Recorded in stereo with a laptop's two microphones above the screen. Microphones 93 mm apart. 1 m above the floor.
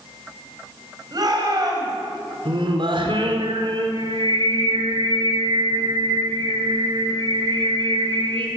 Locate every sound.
1.1 s a shout: 45° right (ahead or behind), 5.5 m
2.5 s singing: 65° right (ahead or behind), 4 m